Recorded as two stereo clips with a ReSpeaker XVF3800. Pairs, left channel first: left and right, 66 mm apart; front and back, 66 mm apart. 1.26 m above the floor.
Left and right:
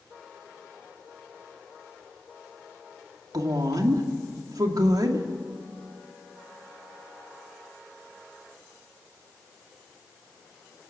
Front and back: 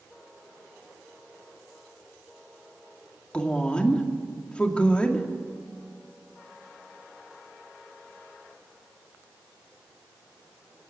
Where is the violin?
I don't hear a violin.